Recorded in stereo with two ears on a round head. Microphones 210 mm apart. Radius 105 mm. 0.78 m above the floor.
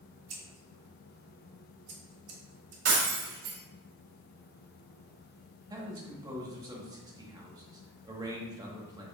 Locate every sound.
0.3 s scissors: 70° right (ahead or behind), 1.1 m
2.9 s breaking glass: 45° right (ahead or behind), 1.5 m
5.7 s a man speaking: 15° right (ahead or behind), 1.0 m